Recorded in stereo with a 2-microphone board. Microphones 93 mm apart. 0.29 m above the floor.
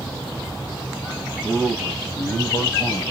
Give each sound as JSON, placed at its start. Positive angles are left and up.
{"t": 1.4, "sound": "a man speaking", "side_deg": 0, "distance_m": 1.7}